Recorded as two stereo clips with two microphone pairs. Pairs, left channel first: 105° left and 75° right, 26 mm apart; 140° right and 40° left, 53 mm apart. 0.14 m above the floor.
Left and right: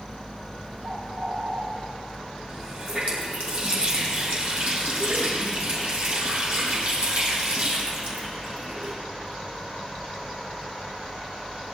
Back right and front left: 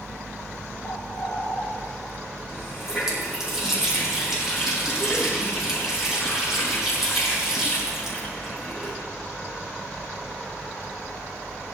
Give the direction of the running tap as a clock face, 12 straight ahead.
1 o'clock.